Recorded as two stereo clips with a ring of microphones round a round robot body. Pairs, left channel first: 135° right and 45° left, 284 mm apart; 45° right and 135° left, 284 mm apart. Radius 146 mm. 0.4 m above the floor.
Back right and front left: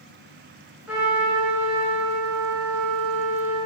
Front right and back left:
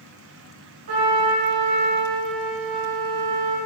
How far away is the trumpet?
About 5 m.